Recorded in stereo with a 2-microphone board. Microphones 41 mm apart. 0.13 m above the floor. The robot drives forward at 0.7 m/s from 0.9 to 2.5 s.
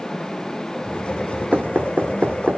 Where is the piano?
I don't hear a piano.